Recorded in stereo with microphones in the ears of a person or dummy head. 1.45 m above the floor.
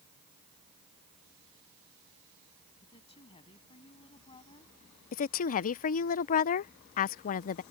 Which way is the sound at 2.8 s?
30° left (ahead or behind).